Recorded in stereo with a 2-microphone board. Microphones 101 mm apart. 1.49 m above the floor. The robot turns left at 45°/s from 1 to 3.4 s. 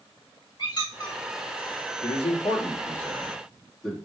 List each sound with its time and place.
0.6 s a squeak: 45° left (ahead or behind), 1.7 m; by 1.2 s 35° left (ahead or behind), 1.7 m
2.0 s a man speaking: 65° left (ahead or behind), 2.5 m; by 4.0 s 5° left (ahead or behind), 2.5 m